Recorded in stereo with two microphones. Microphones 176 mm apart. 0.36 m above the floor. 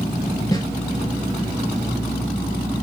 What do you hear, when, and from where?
0.5 s a snare drum: 20° left (ahead or behind), 2.5 m